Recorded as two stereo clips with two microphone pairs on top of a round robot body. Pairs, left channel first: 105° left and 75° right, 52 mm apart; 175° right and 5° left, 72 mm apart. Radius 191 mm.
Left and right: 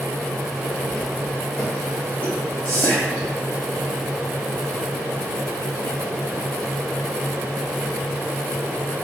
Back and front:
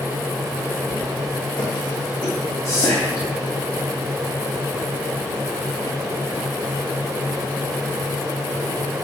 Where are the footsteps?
175° left, 3 m; by 2.9 s 155° left, 4 m.